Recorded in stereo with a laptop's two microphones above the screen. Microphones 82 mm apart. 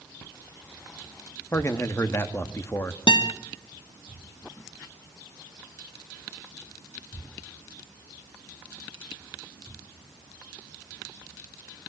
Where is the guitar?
80° left, 1.9 m.